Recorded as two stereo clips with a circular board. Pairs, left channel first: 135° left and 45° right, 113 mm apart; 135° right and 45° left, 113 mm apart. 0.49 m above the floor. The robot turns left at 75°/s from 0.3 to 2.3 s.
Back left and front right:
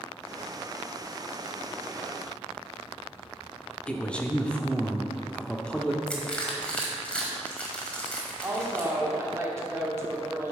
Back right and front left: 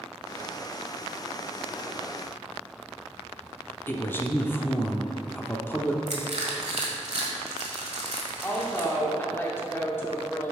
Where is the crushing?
55° left, 1.4 m.